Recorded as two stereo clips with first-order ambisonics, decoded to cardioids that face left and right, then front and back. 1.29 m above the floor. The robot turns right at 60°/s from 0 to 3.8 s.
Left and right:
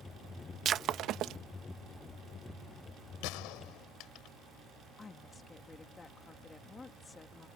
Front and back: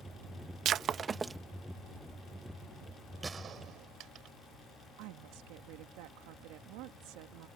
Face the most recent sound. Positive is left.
turn(degrees=165)